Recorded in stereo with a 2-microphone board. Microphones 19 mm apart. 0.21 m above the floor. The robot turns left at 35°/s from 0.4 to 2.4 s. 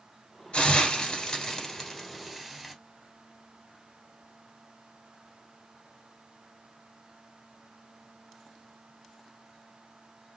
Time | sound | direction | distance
0.5 | a hiss | 60° left (ahead or behind) | 1.4 m